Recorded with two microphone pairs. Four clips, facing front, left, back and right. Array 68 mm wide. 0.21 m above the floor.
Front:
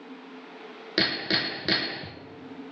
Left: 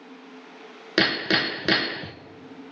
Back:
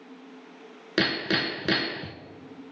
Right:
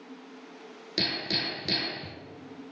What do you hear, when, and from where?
1.0 s hammering: 95° left, 1.0 m